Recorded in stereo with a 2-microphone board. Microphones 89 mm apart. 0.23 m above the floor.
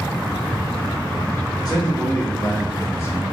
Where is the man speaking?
45° left (ahead or behind), 1.9 m; by 3.2 s 30° left (ahead or behind), 1.1 m.